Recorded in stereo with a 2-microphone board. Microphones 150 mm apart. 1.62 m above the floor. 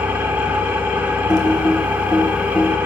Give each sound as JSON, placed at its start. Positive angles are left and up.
{"t": 0.0, "sound": "an engine running", "side_deg": -10, "distance_m": 1.0}
{"t": 1.3, "sound": "typing on a keyboard", "side_deg": 25, "distance_m": 1.3}